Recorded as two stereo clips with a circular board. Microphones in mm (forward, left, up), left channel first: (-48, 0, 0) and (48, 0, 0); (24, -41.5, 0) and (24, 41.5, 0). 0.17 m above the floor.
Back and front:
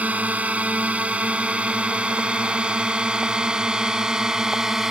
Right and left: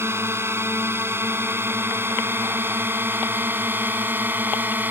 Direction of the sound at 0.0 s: 65° left.